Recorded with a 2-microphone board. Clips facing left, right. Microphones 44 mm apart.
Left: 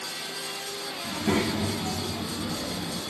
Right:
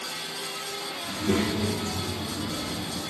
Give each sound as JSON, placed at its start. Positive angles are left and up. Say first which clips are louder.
{"t": 1.0, "sound": "a child speaking", "louder": "even", "side_deg": 60, "distance_m": 3.5}